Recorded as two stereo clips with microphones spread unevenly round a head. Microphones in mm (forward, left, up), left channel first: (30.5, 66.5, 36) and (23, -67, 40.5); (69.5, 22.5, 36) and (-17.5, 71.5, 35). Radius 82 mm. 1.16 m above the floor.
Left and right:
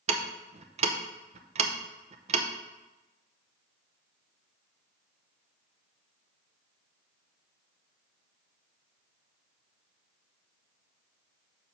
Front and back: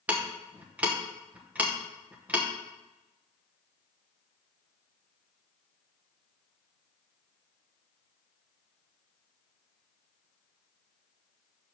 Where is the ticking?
135° right, 0.7 m.